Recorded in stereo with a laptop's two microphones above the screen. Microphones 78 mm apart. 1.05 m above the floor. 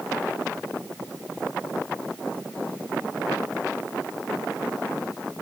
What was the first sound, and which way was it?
Only background noise.